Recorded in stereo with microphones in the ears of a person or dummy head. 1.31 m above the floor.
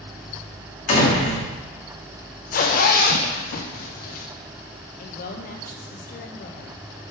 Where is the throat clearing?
I don't hear throat clearing.